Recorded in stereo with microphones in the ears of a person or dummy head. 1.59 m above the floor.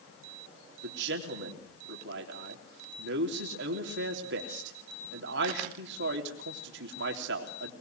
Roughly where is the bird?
I don't hear a bird.